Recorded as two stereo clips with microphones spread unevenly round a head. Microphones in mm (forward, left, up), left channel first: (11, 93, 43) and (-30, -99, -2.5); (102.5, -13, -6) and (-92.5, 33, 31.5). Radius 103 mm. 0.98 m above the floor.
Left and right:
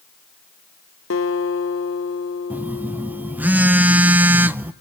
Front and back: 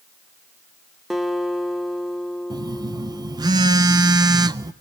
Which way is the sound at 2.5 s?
125° right.